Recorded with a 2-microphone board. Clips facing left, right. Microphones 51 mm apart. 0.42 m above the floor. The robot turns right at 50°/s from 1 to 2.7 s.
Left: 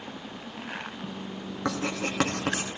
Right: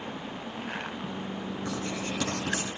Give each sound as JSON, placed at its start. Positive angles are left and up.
{"t": 1.6, "sound": "writing", "side_deg": 80, "distance_m": 2.5}